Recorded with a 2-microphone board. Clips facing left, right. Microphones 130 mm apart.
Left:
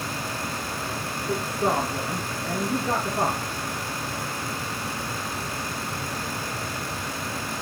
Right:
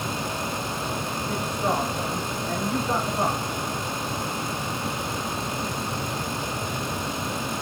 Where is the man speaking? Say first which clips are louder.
Left 2 dB; 50° left (ahead or behind), 5.5 m.